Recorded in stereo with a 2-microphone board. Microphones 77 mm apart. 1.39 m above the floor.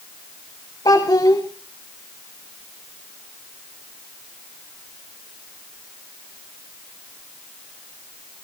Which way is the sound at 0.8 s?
70° left (ahead or behind).